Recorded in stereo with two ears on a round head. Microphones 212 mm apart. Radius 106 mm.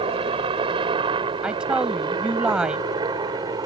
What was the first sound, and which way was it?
A helicopter, 25° right (ahead or behind).